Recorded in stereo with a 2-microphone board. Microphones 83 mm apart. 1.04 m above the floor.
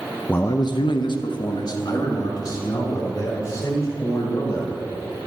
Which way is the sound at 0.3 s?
20° left (ahead or behind).